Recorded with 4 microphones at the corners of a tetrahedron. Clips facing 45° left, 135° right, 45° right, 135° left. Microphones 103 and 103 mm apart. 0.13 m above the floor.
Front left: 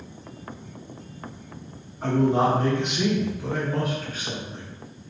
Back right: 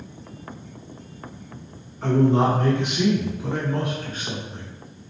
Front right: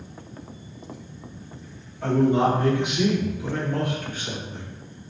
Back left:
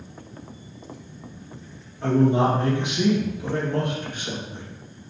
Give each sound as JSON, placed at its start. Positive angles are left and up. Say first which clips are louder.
{"t": 2.0, "sound": "a man speaking", "louder": "back right 2 dB, even", "azimuth_deg": 115, "distance_m": 1.7}